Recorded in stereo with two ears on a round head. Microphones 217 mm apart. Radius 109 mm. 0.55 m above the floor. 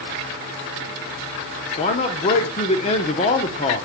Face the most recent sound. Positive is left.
turn(degrees=25)  # may be behind; listen again after turning